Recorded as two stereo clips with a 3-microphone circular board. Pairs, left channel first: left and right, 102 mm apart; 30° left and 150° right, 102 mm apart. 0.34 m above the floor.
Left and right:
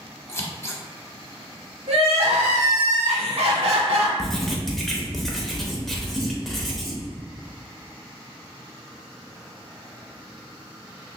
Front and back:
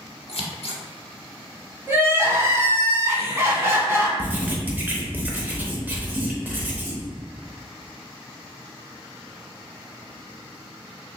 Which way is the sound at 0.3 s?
30° left.